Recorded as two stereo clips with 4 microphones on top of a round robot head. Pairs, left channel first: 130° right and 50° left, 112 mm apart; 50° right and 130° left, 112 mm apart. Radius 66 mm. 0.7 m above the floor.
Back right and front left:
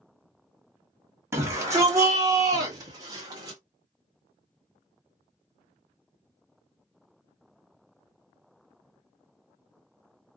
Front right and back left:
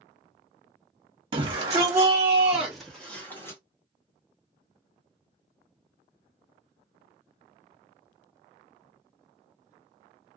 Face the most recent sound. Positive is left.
turn(degrees=5)